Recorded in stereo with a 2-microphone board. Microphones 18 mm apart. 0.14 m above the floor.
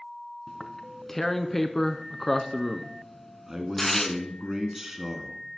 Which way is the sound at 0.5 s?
15° left (ahead or behind).